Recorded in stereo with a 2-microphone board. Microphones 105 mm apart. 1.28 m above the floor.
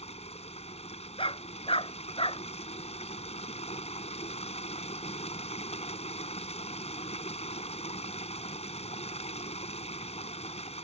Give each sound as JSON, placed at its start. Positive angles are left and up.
{"t": 0.0, "sound": "running water", "side_deg": 85}
{"t": 1.2, "sound": "a dog barking", "side_deg": 60}